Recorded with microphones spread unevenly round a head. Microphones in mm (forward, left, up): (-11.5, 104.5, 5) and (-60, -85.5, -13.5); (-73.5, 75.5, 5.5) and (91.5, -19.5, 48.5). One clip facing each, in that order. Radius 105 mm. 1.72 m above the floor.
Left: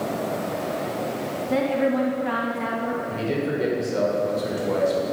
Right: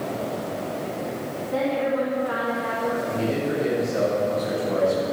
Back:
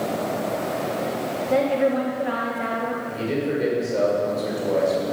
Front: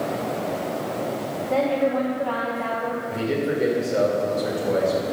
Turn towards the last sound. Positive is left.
turn(degrees=50)